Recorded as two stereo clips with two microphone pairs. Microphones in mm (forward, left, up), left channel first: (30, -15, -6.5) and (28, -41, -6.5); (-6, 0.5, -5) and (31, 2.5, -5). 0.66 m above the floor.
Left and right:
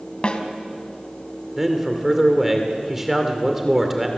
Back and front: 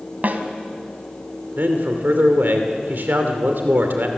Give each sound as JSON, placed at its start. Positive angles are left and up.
{"t": 0.2, "sound": "a snare drum", "azimuth_deg": 40, "distance_m": 2.0}
{"t": 1.6, "sound": "a man speaking", "azimuth_deg": -10, "distance_m": 2.5}